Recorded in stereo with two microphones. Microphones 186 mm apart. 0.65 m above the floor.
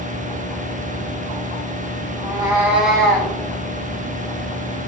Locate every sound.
2.2 s a cat meowing: 30° right (ahead or behind), 0.9 m; by 3.3 s 15° left (ahead or behind), 1.0 m